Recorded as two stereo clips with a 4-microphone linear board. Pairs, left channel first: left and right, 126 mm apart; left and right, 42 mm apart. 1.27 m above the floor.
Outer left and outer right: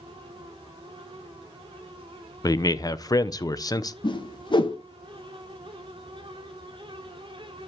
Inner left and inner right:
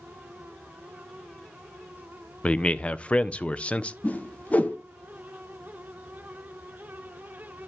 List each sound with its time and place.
2.4 s a man speaking: 30° left (ahead or behind), 0.6 m
4.0 s a whoosh: 40° left (ahead or behind), 1.0 m